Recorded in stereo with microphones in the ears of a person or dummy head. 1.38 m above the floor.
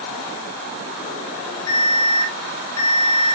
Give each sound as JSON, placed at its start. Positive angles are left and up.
{"t": 1.7, "sound": "an alarm", "side_deg": 75, "distance_m": 6.5}